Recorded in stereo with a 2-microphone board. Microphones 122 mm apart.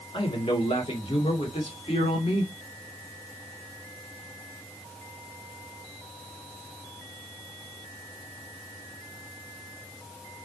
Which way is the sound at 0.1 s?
45° left (ahead or behind).